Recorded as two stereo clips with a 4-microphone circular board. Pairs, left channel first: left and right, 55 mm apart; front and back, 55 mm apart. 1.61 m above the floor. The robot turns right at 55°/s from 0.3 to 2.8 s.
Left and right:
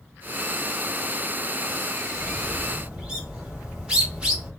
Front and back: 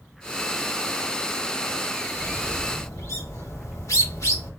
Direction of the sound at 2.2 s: 50° right.